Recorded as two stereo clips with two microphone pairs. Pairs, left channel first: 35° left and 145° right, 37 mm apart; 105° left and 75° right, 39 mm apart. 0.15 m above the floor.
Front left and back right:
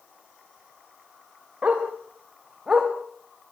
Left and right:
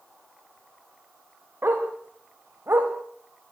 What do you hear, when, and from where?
1.6 s a dog barking: 95° right, 6 m; by 2.9 s 75° right, 5 m